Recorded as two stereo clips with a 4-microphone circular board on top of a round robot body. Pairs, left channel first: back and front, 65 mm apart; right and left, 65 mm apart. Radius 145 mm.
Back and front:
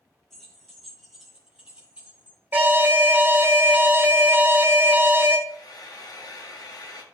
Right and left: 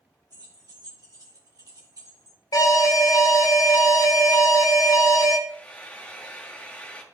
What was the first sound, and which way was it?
Keys jangling, 95° left.